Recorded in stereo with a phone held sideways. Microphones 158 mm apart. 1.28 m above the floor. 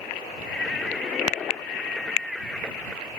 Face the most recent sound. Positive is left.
turn(degrees=0)  # may be behind; listen again after turning